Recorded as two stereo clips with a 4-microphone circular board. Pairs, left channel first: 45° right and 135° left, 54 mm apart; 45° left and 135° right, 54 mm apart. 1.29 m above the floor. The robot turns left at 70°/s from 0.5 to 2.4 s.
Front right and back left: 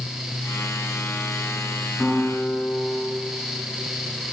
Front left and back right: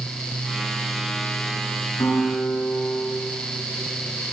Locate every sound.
2.0 s a guitar: 35° left, 9 m; by 3.1 s 10° left, 9 m